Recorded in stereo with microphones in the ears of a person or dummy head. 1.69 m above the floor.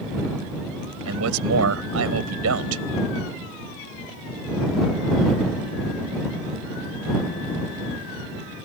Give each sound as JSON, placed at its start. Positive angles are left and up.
{"t": 1.1, "sound": "a man speaking", "side_deg": -85}